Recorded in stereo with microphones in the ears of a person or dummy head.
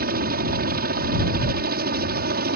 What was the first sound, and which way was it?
A helicopter, 45° right (ahead or behind).